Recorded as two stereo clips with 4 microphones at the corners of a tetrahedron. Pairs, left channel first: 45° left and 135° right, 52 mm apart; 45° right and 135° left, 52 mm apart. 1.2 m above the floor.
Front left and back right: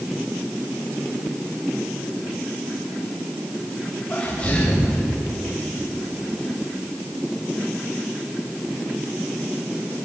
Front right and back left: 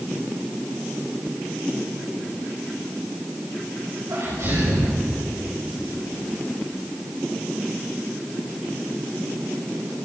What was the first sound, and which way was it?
A sneeze, 110° left.